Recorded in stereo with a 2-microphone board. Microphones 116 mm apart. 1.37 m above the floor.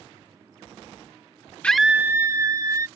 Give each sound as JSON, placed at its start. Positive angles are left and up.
{"t": 1.6, "sound": "a scream", "side_deg": 10}